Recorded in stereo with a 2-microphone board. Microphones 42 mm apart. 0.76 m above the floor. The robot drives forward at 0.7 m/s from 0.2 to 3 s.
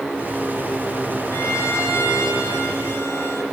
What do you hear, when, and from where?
1.3 s a violin: 85° left, 5.5 m